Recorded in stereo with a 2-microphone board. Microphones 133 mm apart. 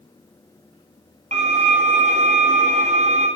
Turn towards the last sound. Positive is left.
turn(degrees=-65)  # may be behind; listen again after turning